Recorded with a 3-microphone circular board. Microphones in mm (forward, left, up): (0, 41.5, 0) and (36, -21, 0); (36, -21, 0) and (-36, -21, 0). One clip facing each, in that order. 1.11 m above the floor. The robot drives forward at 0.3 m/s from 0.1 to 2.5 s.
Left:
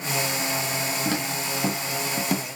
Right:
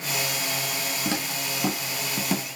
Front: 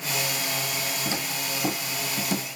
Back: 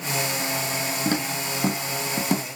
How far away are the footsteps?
About 2.5 m.